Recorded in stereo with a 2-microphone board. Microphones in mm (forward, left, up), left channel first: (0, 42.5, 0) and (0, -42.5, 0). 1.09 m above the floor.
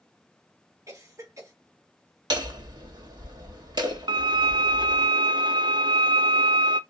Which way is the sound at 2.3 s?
60° right (ahead or behind).